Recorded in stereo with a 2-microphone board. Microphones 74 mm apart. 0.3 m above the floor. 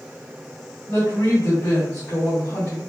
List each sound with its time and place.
0.9 s a woman speaking: 35° left (ahead or behind), 1.9 m